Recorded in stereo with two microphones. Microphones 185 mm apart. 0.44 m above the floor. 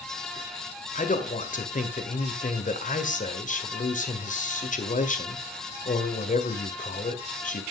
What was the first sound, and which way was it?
A man speaking, 45° left (ahead or behind).